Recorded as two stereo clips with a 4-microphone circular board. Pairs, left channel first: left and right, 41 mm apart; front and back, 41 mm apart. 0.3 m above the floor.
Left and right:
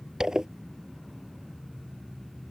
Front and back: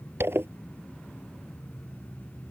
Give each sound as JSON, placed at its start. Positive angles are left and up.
{"t": 0.2, "sound": "a zipper", "azimuth_deg": -165}